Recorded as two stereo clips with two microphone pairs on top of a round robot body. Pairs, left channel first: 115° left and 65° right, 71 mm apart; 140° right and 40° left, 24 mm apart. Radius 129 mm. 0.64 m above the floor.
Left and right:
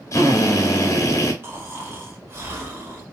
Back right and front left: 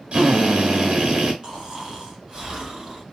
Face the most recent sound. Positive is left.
turn(degrees=-10)